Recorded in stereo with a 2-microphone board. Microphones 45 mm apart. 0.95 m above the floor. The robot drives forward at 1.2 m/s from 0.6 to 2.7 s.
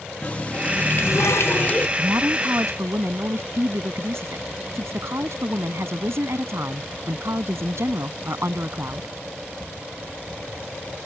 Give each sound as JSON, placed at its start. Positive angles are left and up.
{"t": 0.2, "sound": "a running tap", "side_deg": 30}
{"t": 2.0, "sound": "a woman speaking", "side_deg": -80}